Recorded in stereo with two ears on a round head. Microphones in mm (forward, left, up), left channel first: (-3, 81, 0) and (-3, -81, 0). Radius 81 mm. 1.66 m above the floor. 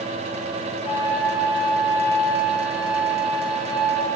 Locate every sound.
0.8 s a flute: 30° left (ahead or behind), 2.5 m